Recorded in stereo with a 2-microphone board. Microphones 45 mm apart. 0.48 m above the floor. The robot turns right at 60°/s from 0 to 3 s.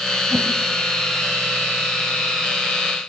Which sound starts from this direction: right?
A whoosh, at 0.3 s.